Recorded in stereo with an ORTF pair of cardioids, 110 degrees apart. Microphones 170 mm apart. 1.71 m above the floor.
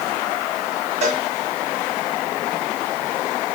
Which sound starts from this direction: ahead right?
A cowbell, at 1.0 s.